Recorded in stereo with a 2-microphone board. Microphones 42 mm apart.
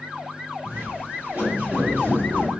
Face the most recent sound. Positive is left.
turn(degrees=-80)